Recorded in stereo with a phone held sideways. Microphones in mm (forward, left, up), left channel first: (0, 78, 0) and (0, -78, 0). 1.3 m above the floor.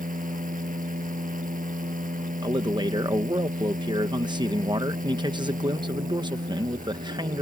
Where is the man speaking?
30° right (ahead or behind).